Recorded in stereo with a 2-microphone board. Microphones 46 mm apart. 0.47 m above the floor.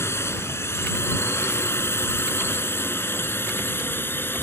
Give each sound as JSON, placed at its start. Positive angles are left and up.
{"t": 0.0, "sound": "a drone", "side_deg": 75}